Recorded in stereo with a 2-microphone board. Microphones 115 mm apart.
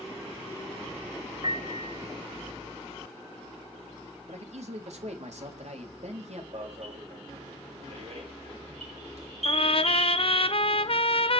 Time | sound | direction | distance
1.4 | a piano | 45° right (ahead or behind) | 1.4 m
4.3 | a man speaking | 75° right (ahead or behind) | 3.5 m
6.5 | an alarm | 70° right (ahead or behind) | 5.5 m
9.4 | a trumpet | 55° left (ahead or behind) | 0.8 m